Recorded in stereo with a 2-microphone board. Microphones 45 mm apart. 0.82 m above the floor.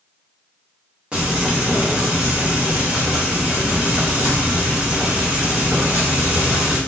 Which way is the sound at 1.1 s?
25° right (ahead or behind).